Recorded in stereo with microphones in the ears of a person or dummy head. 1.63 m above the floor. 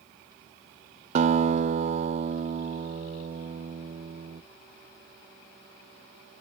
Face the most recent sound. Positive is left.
turn(degrees=-40)  # may be behind; listen again after turning